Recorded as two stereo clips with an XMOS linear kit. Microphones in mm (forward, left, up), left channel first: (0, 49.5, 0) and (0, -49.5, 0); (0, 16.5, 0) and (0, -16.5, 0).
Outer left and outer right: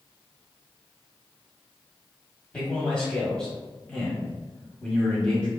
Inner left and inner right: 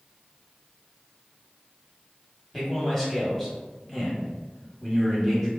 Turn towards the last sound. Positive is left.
turn(degrees=10)  # may be behind; listen again after turning